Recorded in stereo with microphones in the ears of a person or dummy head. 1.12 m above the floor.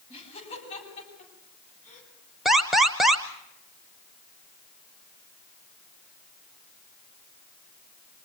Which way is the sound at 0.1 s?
30° left (ahead or behind).